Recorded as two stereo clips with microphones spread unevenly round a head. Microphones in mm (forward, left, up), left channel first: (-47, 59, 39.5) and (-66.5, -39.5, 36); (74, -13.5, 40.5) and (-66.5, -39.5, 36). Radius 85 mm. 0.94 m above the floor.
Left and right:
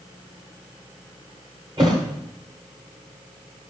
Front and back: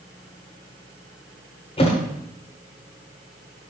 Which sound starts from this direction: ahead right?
A thud, at 1.8 s.